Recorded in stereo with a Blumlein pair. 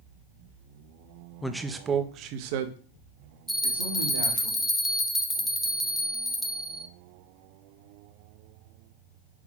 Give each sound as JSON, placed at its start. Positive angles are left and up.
{"t": 1.4, "sound": "a man speaking", "azimuth_deg": 5, "distance_m": 0.7}
{"t": 3.5, "sound": "a bell", "azimuth_deg": 0, "distance_m": 0.6}